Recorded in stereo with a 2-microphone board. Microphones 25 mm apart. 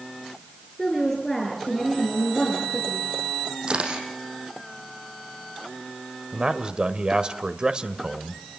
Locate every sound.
0.8 s a woman speaking: 10° left (ahead or behind), 6.5 m; by 3.1 s 30° left (ahead or behind), 7 m
3.7 s a camera shutter: 40° right (ahead or behind), 6.5 m
6.3 s a man speaking: 35° right (ahead or behind), 1.4 m